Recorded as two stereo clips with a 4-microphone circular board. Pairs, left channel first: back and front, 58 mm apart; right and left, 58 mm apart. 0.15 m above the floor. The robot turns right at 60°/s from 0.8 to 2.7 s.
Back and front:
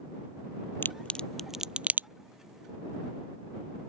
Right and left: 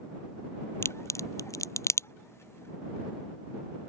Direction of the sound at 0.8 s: 130° right.